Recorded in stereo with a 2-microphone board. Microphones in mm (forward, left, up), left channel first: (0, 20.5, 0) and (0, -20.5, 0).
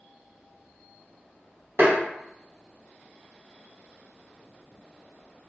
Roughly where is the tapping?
Right.